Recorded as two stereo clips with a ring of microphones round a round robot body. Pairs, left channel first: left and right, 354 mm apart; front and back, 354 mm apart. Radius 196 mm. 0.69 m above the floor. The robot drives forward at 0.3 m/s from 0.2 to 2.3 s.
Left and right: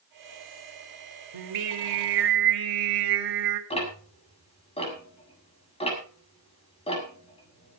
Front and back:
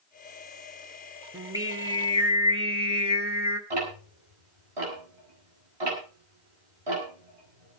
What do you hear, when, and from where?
1.3 s singing: 100° right, 2.5 m; by 3.6 s 105° right, 2.5 m
3.7 s ticking: 165° left, 7 m